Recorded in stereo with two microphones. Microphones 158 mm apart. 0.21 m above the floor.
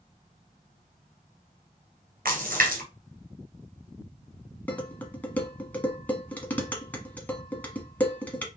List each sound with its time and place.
2.2 s a splash: 70° right (ahead or behind), 1.9 m
4.7 s dishes clattering: 10° left (ahead or behind), 1.3 m